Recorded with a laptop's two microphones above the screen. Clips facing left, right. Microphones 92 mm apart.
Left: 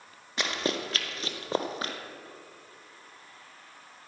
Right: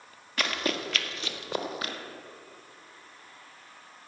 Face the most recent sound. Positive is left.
turn(degrees=30)  # may be behind; listen again after turning